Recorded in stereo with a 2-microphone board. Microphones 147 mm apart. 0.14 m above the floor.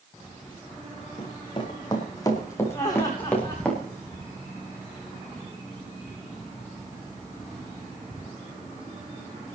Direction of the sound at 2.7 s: 25° left (ahead or behind).